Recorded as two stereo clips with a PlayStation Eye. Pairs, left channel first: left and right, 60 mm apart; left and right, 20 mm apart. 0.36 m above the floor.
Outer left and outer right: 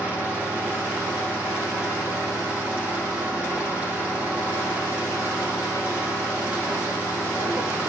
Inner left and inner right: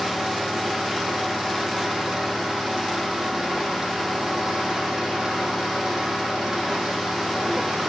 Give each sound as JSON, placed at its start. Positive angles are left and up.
{"t": 0.0, "sound": "an engine running", "side_deg": -25, "distance_m": 9.5}